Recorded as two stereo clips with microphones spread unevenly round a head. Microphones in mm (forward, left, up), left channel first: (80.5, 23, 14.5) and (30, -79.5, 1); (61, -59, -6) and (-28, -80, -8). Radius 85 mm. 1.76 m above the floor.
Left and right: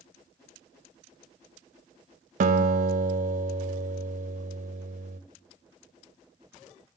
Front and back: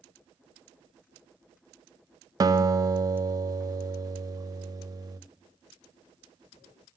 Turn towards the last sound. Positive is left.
turn(degrees=-120)